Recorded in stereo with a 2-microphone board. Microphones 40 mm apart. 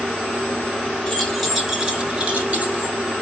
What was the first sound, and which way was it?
Keys jangling, 10° left (ahead or behind).